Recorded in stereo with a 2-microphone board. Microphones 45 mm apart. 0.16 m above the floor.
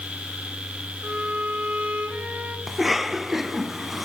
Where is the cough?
5° right (ahead or behind), 1.2 m.